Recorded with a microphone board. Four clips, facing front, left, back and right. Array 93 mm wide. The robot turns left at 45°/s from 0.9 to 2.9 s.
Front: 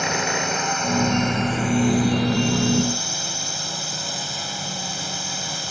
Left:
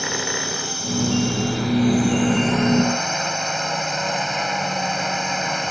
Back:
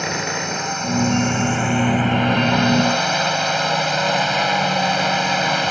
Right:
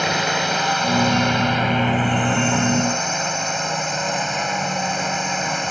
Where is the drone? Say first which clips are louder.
Right 6 dB, even; 85° right; by 5.7 s 175° right.